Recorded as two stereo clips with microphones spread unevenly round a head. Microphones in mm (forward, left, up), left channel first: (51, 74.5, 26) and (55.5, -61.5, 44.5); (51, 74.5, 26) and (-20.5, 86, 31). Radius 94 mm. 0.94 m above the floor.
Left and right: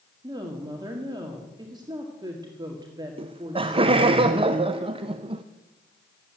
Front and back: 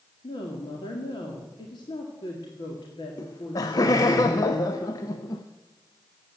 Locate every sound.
0.2 s a woman speaking: 25° right, 1.9 m
3.2 s laughter: 35° right, 0.7 m